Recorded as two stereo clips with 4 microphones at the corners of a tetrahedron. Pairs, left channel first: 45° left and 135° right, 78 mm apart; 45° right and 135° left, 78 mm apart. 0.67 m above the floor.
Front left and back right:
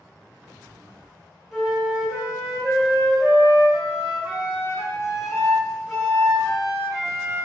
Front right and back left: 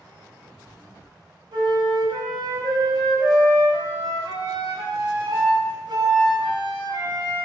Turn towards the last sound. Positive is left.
turn(degrees=135)